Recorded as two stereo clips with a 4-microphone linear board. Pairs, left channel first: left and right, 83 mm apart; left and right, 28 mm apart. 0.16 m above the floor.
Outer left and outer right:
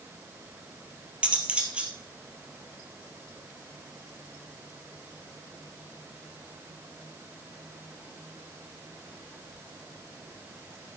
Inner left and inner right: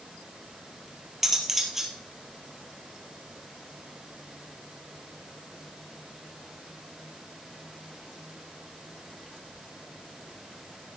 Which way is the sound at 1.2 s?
15° right (ahead or behind).